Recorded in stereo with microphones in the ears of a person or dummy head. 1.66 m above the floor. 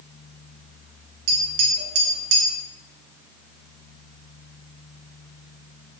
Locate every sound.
1.3 s tapping: 80° right, 0.8 m